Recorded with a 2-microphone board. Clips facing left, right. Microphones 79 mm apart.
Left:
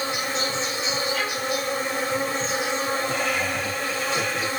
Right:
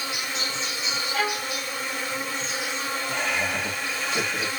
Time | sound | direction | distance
0.0 | an insect | 40° left (ahead or behind) | 0.8 m
1.1 | a violin | 55° right (ahead or behind) | 1.4 m
3.1 | laughter | 25° right (ahead or behind) | 1.4 m